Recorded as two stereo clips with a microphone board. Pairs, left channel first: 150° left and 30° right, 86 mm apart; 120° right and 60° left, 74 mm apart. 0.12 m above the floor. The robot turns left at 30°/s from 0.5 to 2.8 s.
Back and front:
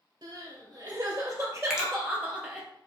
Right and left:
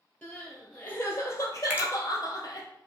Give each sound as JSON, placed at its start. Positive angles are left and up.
{"t": 0.2, "sound": "crying", "azimuth_deg": -45, "distance_m": 1.5}
{"t": 1.7, "sound": "a finger snap", "azimuth_deg": 40, "distance_m": 1.0}